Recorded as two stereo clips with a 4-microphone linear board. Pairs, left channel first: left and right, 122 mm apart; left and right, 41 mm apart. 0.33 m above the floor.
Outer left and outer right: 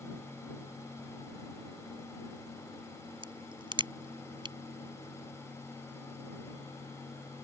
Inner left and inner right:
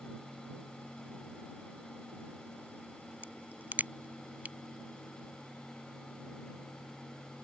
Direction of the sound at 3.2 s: 45° right (ahead or behind).